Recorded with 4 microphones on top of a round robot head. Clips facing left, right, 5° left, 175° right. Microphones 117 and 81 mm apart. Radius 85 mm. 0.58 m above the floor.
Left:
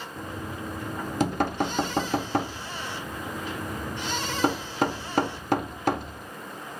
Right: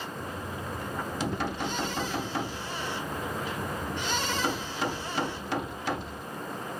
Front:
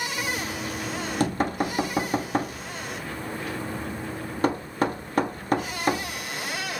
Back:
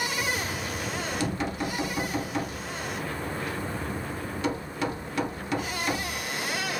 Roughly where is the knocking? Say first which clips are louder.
Left 1 dB, even; ahead left.